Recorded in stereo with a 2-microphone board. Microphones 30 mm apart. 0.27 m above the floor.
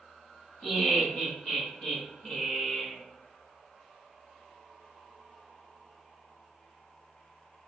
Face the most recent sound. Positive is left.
turn(degrees=35)  # may be behind; listen again after turning